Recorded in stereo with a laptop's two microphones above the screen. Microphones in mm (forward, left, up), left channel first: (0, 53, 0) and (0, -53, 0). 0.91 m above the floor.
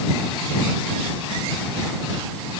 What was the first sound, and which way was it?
Only background noise.